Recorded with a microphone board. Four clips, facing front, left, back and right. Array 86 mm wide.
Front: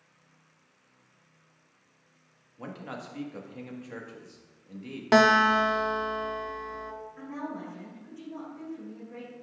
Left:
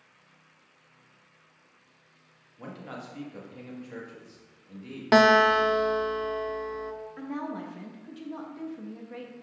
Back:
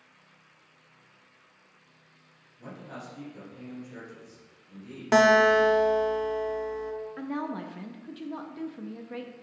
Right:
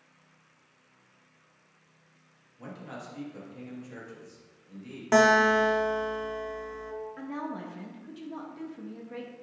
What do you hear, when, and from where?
2.6 s a man speaking: 15° left, 1.5 m
5.1 s a guitar: 65° left, 0.6 m
7.2 s a woman speaking: 175° left, 0.7 m